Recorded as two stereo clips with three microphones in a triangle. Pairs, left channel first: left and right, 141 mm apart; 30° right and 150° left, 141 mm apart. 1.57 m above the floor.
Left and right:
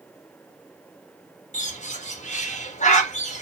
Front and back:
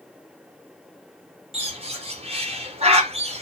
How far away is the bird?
About 0.9 m.